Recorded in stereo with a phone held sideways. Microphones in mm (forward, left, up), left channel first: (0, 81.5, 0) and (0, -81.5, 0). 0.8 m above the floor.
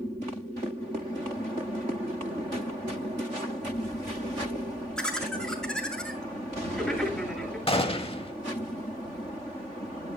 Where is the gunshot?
35° left (ahead or behind), 0.8 m.